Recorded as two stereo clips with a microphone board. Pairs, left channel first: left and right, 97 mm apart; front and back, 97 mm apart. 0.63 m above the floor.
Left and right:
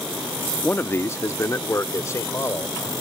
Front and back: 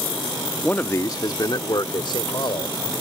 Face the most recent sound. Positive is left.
turn(degrees=30)